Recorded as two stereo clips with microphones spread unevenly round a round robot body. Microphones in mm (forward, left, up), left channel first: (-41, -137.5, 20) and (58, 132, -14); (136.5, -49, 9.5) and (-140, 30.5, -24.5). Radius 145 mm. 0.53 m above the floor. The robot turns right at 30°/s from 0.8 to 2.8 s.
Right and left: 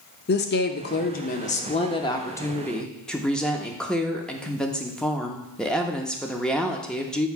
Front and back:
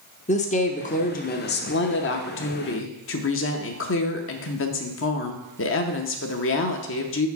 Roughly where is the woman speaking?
Right.